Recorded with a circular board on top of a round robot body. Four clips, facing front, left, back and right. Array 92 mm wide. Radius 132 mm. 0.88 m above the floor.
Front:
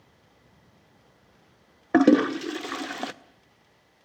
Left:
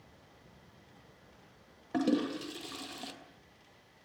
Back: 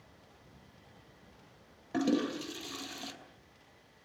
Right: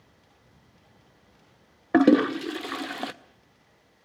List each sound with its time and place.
1.9 s a toilet flushing: 45° right, 0.5 m